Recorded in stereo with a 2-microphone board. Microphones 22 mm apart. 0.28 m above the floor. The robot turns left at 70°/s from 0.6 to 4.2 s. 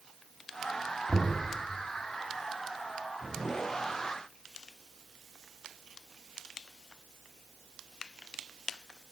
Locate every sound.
1.1 s knocking: 45° right (ahead or behind), 1.9 m; by 1.4 s 55° right (ahead or behind), 1.9 m